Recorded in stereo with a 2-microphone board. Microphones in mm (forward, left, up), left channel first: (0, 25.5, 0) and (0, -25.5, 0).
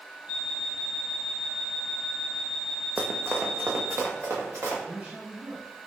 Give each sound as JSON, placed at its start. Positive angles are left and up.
{"t": 0.3, "sound": "an alarm clock", "side_deg": -30, "distance_m": 1.0}
{"t": 3.0, "sound": "running footsteps", "side_deg": -25, "distance_m": 0.6}
{"t": 4.8, "sound": "a man speaking", "side_deg": -25, "distance_m": 1.7}